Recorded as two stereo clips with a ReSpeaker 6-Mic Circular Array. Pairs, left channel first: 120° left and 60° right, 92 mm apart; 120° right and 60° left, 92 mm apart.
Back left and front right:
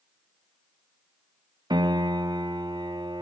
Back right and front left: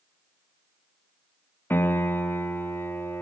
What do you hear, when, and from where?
1.7 s a piano: 60° right, 1.4 m